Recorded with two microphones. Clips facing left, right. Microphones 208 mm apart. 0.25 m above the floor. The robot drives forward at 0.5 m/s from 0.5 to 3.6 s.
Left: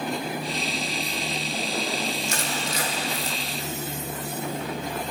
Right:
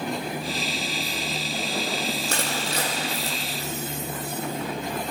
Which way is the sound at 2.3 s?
60° right (ahead or behind).